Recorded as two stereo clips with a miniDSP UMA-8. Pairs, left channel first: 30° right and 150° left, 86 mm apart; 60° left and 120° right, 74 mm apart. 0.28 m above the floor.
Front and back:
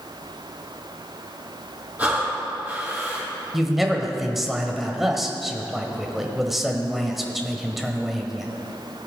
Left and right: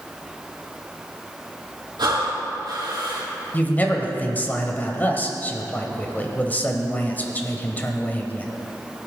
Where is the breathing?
135° right, 3 m.